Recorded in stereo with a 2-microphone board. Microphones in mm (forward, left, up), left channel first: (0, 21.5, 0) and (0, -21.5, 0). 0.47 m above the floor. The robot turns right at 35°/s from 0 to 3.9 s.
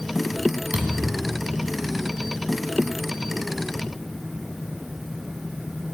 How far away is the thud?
About 2 m.